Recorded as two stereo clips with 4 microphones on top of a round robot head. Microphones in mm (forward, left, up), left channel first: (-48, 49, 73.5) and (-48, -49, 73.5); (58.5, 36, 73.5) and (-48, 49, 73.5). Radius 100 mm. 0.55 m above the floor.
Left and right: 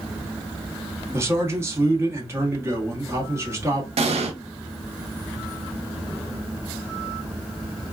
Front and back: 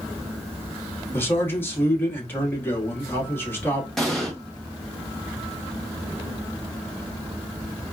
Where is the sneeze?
No sneeze in this recording.